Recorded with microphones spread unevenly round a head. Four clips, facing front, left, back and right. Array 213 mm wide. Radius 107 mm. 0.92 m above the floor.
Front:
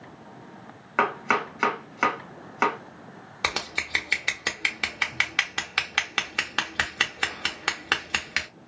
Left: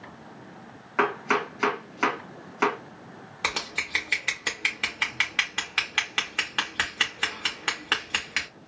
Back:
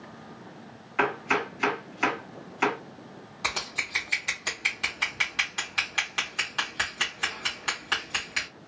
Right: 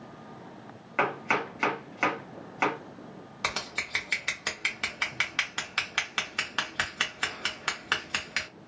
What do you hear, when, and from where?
1.0 s chopping: 10° left, 1.7 m
3.4 s scissors: 15° left, 1.3 m